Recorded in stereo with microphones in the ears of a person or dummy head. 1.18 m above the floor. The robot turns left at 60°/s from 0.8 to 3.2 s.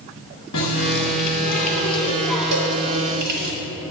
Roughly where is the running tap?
Left.